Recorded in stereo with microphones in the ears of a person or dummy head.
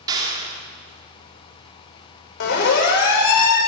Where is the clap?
20° right (ahead or behind), 3 m.